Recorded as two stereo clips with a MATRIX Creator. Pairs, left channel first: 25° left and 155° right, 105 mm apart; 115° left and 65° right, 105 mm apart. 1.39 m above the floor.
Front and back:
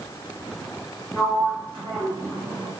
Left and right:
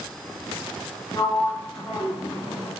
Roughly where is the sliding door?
Behind.